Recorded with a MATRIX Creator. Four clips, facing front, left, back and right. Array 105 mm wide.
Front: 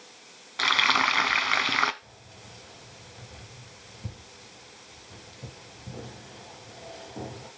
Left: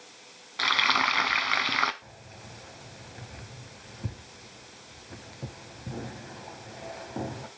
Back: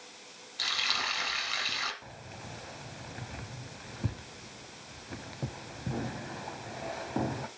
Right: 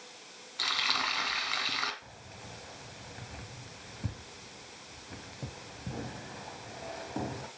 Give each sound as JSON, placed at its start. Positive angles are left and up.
{"t": 0.6, "sound": "frying", "azimuth_deg": 35, "distance_m": 0.7}
{"t": 2.0, "sound": "keys jangling", "azimuth_deg": 180, "distance_m": 1.2}